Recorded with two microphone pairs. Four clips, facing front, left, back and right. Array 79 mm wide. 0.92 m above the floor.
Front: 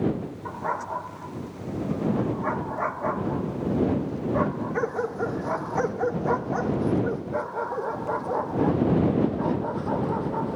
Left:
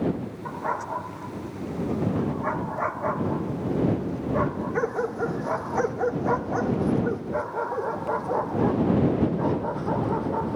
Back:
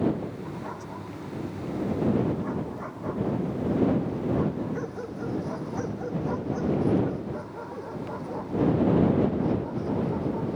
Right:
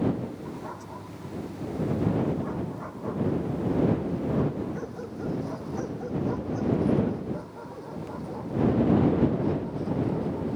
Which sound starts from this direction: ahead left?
A dog barking, at 0.5 s.